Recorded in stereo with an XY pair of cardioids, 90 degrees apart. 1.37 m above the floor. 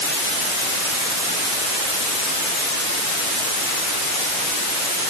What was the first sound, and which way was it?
Only background noise.